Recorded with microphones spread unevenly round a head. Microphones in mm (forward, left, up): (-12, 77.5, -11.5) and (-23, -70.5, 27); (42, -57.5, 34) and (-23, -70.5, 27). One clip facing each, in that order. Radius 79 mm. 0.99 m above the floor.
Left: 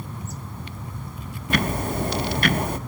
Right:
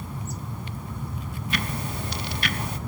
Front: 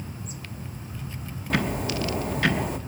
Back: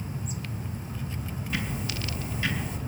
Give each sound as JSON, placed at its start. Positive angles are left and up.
{"t": 1.5, "sound": "ticking", "azimuth_deg": 35, "distance_m": 0.5}